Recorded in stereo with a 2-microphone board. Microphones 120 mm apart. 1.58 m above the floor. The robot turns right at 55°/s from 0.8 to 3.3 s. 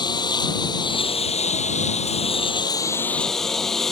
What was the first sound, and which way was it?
A lawn mower, 40° left.